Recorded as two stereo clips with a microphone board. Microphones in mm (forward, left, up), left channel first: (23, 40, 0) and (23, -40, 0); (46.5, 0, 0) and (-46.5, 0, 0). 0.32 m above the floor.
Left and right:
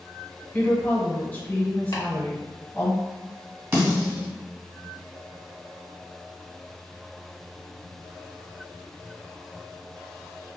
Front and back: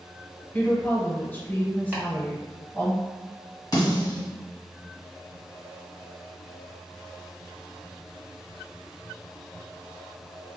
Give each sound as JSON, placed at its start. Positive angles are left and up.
{"t": 0.5, "sound": "a woman speaking", "azimuth_deg": 45, "distance_m": 0.9}
{"t": 1.9, "sound": "chopping", "azimuth_deg": 115, "distance_m": 1.1}
{"t": 3.7, "sound": "a snare drum", "azimuth_deg": -40, "distance_m": 1.7}